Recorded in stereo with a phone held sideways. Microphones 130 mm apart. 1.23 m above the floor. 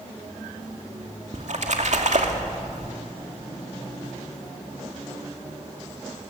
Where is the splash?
65° right (ahead or behind), 2.5 m.